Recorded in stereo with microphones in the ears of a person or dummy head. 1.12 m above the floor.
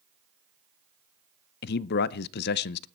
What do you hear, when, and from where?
1.6 s a man speaking: 50° left (ahead or behind), 0.5 m